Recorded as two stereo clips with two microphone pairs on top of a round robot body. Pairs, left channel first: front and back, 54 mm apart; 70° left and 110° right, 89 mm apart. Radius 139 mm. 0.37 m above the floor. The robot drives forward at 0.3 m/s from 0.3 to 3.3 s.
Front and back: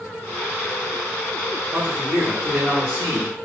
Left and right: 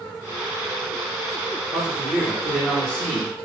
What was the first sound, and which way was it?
A man speaking, 155° right.